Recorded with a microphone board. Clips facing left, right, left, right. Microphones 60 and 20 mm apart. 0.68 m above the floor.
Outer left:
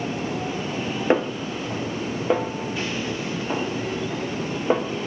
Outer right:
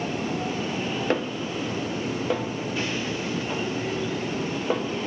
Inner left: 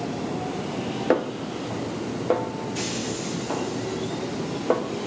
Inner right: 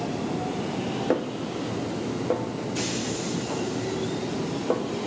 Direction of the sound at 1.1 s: 20° left (ahead or behind).